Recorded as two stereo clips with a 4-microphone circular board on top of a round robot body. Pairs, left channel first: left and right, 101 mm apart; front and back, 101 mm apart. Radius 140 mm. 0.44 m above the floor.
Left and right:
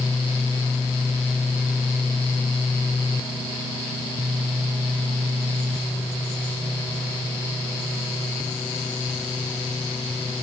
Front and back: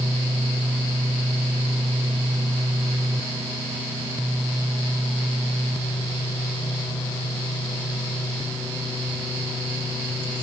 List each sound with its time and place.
Only background noise.